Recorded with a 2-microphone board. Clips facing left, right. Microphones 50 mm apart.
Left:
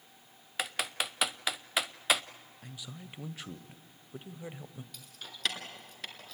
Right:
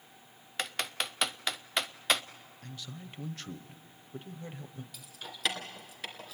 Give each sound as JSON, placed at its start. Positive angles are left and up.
{"t": 0.6, "sound": "typing on a keyboard", "side_deg": 5, "distance_m": 0.5}
{"t": 2.6, "sound": "a man speaking", "side_deg": 10, "distance_m": 0.9}
{"t": 4.9, "sound": "keys jangling", "side_deg": -5, "distance_m": 2.5}